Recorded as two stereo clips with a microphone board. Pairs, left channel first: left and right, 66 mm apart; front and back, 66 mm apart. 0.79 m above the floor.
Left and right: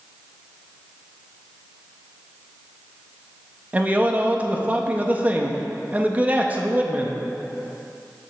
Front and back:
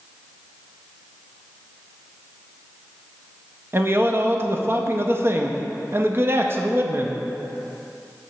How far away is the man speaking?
About 0.5 m.